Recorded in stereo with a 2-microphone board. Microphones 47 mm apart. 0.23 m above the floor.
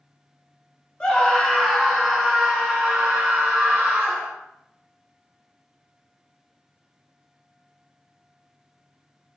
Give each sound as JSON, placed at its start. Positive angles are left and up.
{"t": 1.0, "sound": "a scream", "side_deg": 20, "distance_m": 1.1}